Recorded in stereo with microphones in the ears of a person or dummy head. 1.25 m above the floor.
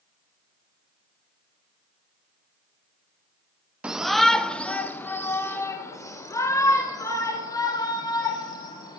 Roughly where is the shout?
Centre.